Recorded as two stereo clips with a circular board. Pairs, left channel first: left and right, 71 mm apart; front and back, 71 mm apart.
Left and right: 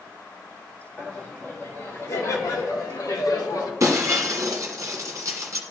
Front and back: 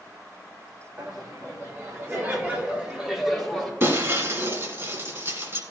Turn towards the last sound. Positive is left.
turn(degrees=-130)